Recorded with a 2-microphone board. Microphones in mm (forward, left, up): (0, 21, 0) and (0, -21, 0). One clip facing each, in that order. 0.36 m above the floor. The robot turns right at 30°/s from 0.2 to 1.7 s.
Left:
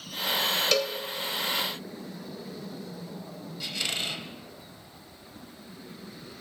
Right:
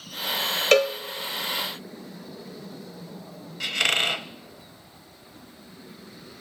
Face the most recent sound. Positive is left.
turn(degrees=-65)  # may be behind; listen again after turning